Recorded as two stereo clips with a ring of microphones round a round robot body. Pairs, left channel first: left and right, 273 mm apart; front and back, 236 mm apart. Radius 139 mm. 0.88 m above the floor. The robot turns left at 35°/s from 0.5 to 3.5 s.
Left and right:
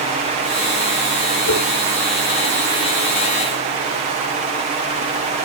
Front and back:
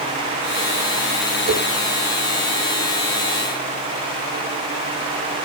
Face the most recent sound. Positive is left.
turn(degrees=70)